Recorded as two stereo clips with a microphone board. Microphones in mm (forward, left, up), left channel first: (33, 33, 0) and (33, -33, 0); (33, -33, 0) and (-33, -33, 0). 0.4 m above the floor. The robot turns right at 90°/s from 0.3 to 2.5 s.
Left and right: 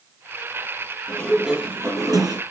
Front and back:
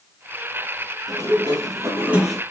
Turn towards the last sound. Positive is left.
turn(degrees=-75)